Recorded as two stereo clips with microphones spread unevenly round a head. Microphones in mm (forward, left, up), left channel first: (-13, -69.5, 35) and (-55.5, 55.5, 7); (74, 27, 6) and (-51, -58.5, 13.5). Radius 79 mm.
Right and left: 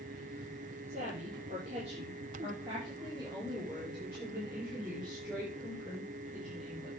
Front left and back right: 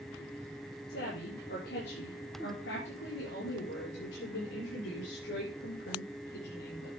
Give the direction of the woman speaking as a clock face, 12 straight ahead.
10 o'clock.